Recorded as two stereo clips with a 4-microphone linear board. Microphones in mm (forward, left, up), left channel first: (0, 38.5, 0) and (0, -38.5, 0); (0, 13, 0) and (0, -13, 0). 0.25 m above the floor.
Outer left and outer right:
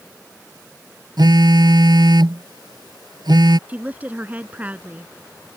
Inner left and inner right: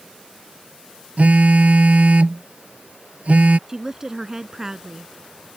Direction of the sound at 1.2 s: 75° right (ahead or behind).